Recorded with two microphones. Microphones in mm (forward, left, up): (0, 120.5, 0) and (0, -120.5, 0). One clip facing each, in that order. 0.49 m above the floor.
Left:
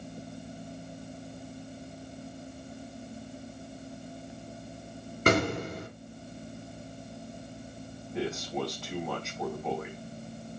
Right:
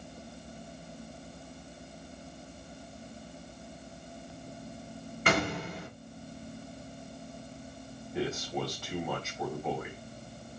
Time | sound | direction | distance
5.3 | an explosion | 45° left (ahead or behind) | 3.5 m
8.1 | a man speaking | 5° left (ahead or behind) | 3.5 m